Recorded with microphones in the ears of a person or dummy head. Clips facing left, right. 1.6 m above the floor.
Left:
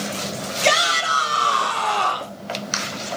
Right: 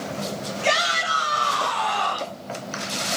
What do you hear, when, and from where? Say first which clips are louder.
0.6 s a shout: left 4 dB; 45° left (ahead or behind), 4.5 m; by 2.4 s 35° left (ahead or behind), 4.5 m